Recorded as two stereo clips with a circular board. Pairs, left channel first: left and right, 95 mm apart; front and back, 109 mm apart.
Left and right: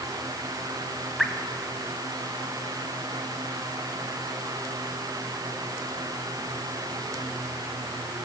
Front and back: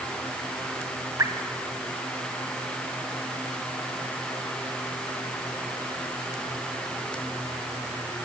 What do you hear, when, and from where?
1.2 s dripping: straight behind, 1.6 m